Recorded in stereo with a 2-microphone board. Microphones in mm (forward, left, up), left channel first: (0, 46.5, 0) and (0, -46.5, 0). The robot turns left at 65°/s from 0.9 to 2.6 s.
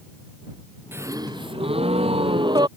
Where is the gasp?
25° right; by 2.7 s 135° right.